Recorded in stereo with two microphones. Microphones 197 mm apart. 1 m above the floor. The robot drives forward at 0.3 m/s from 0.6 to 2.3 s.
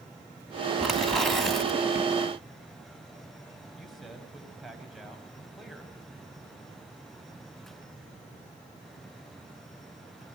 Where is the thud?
I don't hear a thud.